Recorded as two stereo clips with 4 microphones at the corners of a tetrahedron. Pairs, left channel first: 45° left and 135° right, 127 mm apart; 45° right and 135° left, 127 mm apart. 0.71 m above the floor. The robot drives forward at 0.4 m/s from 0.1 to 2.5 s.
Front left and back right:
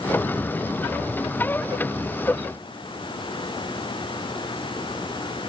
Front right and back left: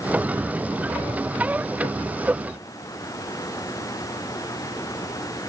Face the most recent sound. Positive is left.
No sound to turn to.